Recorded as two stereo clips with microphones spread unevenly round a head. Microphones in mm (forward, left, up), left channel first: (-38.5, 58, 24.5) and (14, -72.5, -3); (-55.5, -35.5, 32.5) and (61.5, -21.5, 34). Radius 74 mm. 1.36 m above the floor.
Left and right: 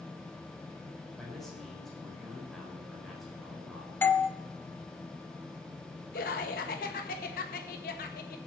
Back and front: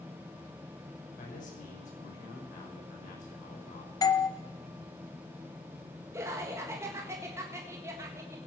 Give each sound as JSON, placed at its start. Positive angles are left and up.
{"t": 1.2, "sound": "a man speaking", "azimuth_deg": -160, "distance_m": 5.5}
{"t": 4.0, "sound": "a doorbell", "azimuth_deg": -165, "distance_m": 1.1}
{"t": 6.1, "sound": "laughter", "azimuth_deg": 80, "distance_m": 1.6}